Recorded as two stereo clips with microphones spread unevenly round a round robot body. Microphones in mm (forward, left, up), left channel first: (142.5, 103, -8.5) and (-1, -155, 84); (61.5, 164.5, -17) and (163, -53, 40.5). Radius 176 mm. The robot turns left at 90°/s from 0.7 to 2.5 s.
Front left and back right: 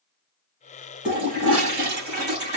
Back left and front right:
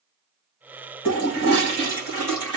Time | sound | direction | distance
1.1 | a toilet flushing | 30° right | 3.5 m